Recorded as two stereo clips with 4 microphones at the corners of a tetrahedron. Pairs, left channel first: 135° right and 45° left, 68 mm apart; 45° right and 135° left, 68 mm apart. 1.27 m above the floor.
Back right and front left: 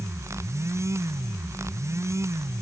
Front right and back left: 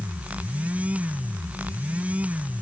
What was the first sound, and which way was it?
Only background noise.